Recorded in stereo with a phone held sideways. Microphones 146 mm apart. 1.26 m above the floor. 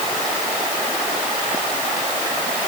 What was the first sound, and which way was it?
Only background noise.